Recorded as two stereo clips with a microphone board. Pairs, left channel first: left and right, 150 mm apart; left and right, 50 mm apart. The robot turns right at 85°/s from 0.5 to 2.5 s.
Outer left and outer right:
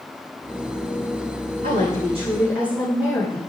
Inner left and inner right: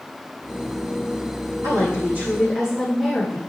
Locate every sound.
1.6 s a woman speaking: 80° right, 6.5 m; by 3.4 s 10° right, 6.5 m